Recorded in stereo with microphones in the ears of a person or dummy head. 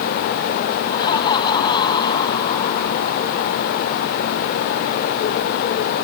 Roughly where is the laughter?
Left.